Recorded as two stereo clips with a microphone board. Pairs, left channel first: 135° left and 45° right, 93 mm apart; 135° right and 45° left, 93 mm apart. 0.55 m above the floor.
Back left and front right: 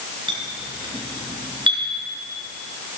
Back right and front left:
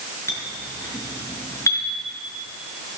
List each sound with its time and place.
0.3 s a clink: 75° right, 4 m